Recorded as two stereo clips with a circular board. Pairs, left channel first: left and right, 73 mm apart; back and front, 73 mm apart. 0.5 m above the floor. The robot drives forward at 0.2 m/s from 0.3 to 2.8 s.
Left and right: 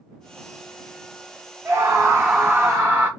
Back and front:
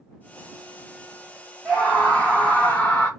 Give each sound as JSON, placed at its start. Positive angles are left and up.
{"t": 1.6, "sound": "a scream", "azimuth_deg": -105, "distance_m": 0.8}